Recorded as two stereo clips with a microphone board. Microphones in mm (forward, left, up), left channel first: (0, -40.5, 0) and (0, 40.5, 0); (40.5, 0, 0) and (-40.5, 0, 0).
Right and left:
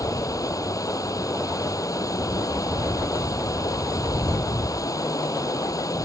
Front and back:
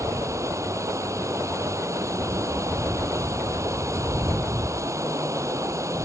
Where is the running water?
130° right.